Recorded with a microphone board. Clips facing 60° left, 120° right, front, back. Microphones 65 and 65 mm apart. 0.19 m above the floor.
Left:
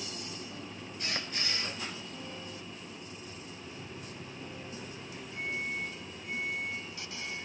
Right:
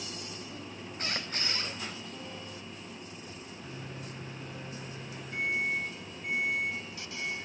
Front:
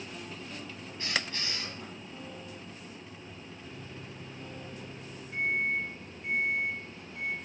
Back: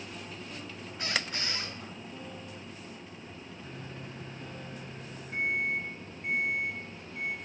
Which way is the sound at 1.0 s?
170° right.